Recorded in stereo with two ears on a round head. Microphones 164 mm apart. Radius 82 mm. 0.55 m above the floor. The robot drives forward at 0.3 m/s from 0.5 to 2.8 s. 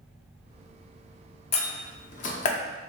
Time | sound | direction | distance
1.5 | a door slam | 35° left (ahead or behind) | 0.6 m